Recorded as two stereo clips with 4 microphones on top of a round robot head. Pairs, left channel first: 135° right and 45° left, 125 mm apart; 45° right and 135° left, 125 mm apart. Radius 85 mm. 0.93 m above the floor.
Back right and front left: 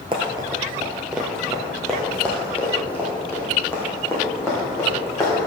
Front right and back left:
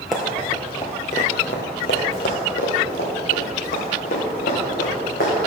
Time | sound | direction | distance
0.1 | running footsteps | 50° left | 1.0 m